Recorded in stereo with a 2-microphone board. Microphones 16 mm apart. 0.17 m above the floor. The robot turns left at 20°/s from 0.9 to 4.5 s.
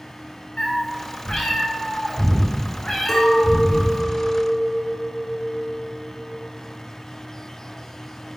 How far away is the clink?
About 1.5 m.